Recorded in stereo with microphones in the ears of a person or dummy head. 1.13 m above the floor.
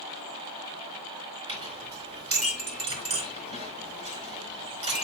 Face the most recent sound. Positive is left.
turn(degrees=-30)  # may be behind; listen again after turning